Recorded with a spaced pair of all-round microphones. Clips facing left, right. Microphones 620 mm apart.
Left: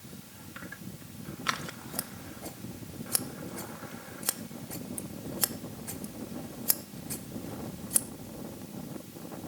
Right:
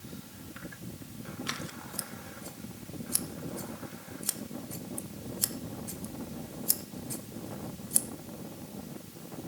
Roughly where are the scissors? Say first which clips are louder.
Even; left.